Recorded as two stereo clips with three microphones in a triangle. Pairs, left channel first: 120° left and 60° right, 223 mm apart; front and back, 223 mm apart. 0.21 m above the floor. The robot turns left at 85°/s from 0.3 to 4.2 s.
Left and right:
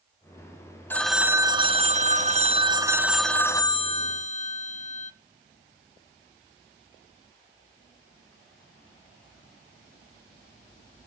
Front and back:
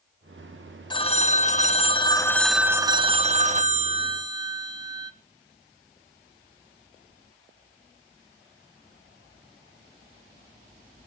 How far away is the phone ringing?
About 0.9 m.